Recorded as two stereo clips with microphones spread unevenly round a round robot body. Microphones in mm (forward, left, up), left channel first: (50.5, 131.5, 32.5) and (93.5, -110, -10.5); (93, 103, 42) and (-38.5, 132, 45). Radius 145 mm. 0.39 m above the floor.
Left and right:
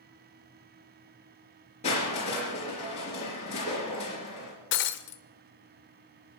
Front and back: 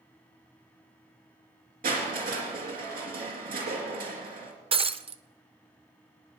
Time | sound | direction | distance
1.8 | crushing | 170° left | 3.5 m
4.7 | breaking glass | 140° left | 0.8 m